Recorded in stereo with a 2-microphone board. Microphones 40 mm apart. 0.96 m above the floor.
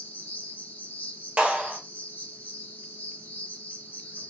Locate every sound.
0.0 s an insect: 55° left (ahead or behind), 0.8 m
1.4 s a clap: 40° right (ahead or behind), 1.3 m